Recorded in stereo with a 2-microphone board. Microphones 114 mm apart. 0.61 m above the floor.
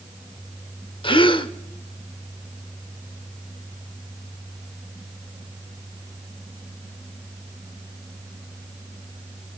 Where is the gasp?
45° left (ahead or behind), 1.0 m.